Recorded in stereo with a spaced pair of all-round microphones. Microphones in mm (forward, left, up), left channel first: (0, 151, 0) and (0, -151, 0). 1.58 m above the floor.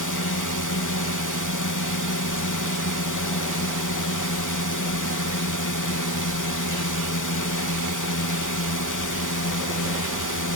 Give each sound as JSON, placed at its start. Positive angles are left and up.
{"t": 0.0, "sound": "a drone", "side_deg": 65}